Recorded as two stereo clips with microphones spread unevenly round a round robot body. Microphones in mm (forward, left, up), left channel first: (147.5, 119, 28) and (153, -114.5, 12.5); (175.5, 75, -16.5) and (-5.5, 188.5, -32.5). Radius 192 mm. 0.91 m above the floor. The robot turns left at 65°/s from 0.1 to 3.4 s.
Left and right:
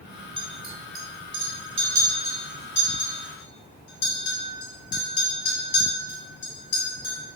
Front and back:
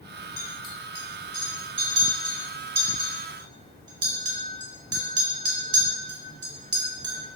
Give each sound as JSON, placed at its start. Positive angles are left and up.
{"t": 0.4, "sound": "a clink", "azimuth_deg": -20, "distance_m": 2.5}